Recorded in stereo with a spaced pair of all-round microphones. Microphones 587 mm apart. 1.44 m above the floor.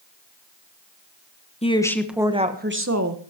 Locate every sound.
1.6 s a woman speaking: 10° left (ahead or behind), 1.4 m; by 3.2 s 30° right (ahead or behind), 1.4 m